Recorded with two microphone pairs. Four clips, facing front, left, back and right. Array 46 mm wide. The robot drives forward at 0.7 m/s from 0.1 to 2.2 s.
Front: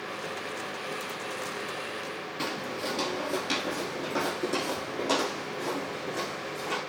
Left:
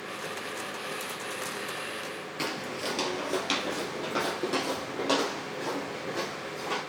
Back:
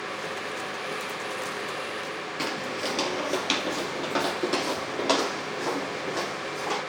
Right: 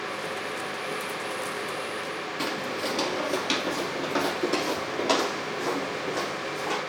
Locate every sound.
2.4 s footsteps: straight behind, 1.5 m; by 6.8 s 170° right, 4.5 m